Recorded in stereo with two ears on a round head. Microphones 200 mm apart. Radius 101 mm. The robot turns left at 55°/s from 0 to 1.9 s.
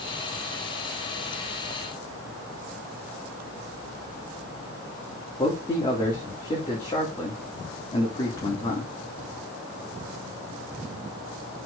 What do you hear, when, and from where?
5.4 s a man speaking: 20° left (ahead or behind), 2.5 m